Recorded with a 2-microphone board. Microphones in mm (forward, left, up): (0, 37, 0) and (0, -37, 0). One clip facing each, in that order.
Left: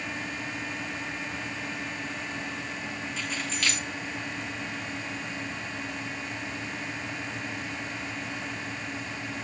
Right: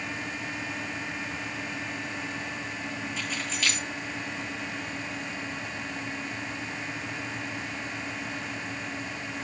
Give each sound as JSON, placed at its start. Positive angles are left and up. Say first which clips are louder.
{"t": 3.2, "sound": "keys jangling", "louder": "left 2 dB", "side_deg": -5, "distance_m": 8.5}